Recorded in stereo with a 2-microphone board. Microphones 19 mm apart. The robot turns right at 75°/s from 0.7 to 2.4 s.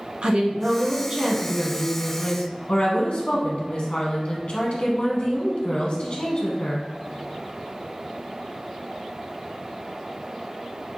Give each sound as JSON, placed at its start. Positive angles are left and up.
{"t": 0.2, "sound": "a woman speaking", "azimuth_deg": -55, "distance_m": 0.9}